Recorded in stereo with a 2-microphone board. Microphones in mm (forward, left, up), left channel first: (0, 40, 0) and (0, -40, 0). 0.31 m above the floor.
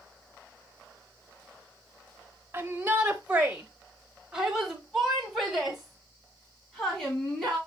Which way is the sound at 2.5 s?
25° right (ahead or behind).